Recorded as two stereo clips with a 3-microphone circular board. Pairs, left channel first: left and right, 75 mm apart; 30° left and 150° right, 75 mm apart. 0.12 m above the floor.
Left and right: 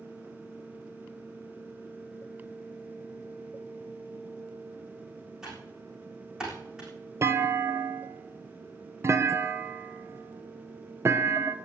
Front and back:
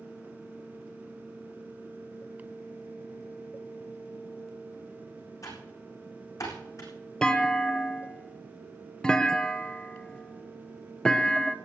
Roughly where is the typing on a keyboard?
Ahead.